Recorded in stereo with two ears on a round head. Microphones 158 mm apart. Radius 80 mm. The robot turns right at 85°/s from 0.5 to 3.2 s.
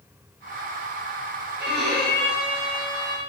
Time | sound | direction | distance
1.6 | a violin | 10° right (ahead or behind) | 0.8 m